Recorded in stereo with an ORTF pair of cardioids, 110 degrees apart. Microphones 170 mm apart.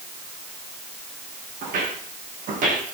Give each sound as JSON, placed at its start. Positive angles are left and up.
{"t": 1.6, "sound": "footsteps", "azimuth_deg": -55, "distance_m": 6.0}